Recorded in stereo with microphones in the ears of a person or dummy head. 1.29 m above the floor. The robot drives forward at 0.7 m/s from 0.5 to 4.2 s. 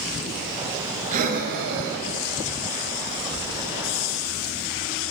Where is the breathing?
45° right (ahead or behind), 0.9 m; by 4.3 s 20° right (ahead or behind), 1.7 m.